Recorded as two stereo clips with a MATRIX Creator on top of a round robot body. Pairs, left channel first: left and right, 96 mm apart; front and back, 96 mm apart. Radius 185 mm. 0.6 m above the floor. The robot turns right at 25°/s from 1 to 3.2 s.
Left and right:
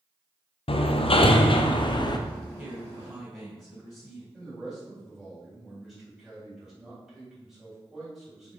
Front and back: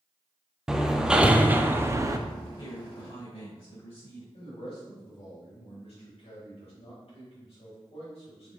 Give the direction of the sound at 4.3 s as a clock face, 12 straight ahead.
12 o'clock.